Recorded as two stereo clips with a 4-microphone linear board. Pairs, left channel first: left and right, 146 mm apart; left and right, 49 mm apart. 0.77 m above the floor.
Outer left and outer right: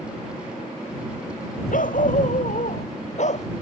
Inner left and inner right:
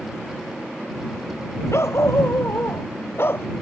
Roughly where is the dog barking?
Left.